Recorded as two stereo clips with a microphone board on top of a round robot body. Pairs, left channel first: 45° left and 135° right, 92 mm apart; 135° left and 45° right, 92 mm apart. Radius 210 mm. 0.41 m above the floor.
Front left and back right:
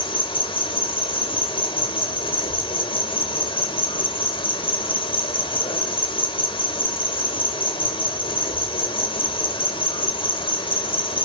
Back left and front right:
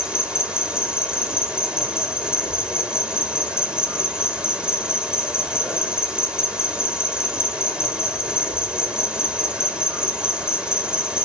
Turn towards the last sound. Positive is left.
turn(degrees=35)